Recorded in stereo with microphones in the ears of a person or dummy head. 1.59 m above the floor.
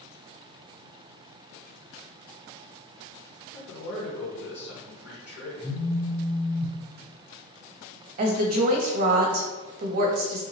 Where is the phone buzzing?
10° right (ahead or behind), 0.8 m.